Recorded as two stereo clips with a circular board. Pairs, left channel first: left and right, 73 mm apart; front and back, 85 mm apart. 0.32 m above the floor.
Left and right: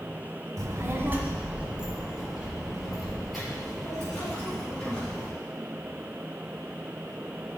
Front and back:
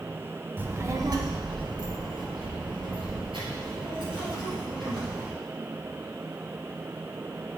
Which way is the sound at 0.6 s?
115° right.